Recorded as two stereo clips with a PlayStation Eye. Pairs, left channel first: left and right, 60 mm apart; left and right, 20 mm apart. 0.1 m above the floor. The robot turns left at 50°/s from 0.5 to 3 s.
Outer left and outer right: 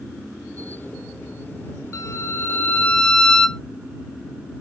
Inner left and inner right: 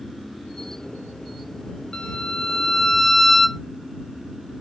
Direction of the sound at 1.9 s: 65° left.